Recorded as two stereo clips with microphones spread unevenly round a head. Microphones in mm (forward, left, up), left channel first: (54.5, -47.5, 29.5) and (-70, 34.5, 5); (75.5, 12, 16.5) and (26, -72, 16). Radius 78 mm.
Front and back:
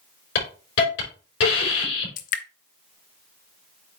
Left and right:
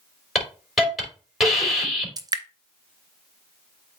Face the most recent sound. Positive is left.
turn(degrees=-70)